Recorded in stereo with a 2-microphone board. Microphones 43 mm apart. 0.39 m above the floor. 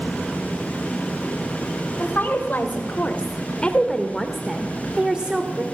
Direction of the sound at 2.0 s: 50° left (ahead or behind).